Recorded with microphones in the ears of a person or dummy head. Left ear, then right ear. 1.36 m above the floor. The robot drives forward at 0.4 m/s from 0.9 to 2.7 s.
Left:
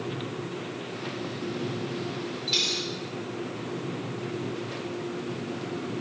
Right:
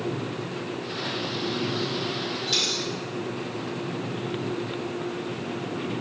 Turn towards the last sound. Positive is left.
turn(degrees=-65)  # may be behind; listen again after turning